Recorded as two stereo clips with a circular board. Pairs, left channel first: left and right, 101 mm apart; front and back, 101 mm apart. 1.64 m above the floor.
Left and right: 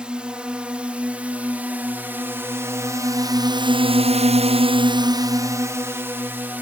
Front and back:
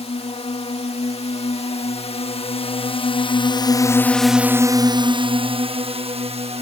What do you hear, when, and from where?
0.0 s a drone: 10° right; by 6.6 s 165° right